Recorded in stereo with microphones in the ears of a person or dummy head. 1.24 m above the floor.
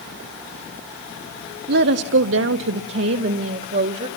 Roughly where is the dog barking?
No dog barking in this recording.